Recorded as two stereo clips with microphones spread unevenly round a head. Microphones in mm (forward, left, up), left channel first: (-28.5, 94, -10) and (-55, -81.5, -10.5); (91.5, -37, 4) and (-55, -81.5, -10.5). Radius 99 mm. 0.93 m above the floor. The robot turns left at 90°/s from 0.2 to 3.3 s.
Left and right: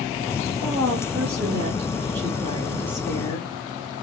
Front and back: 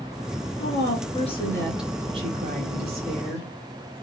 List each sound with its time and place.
0.6 s a woman speaking: 25° left, 1.4 m; by 3.5 s 145° left, 1.4 m